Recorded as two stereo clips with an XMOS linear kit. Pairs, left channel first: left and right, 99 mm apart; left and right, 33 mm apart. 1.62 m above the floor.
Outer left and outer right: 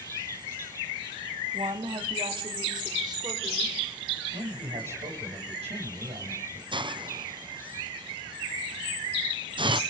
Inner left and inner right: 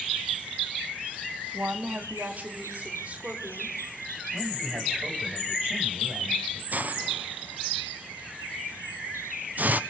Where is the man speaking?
85° right, 7 m.